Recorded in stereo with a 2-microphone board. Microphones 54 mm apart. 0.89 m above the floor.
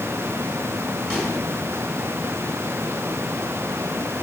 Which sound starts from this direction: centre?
A microwave, at 1.1 s.